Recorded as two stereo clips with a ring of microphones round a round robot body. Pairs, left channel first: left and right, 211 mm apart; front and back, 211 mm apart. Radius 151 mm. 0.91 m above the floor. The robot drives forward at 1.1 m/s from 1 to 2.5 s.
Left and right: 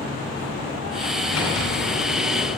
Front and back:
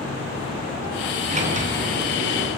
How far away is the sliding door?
About 8.5 m.